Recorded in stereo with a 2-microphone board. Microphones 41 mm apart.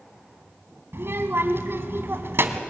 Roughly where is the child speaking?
Right.